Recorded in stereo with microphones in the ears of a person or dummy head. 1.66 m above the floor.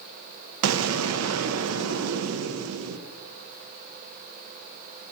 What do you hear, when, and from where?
0.6 s an explosion: 85° right, 0.6 m